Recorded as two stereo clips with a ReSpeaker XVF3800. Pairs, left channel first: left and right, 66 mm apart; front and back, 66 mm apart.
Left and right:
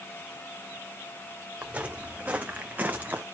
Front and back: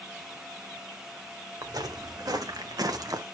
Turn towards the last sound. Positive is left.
turn(degrees=-155)